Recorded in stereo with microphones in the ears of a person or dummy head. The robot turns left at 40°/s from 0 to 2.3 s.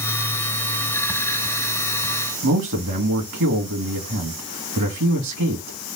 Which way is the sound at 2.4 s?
65° right (ahead or behind).